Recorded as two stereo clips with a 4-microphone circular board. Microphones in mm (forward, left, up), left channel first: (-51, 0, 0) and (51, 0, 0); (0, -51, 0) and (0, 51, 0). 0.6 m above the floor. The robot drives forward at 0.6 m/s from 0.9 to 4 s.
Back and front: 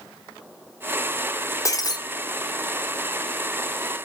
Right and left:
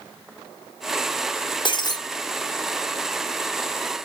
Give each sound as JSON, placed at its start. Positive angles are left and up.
{"t": 1.6, "sound": "breaking glass", "azimuth_deg": -125, "distance_m": 0.8}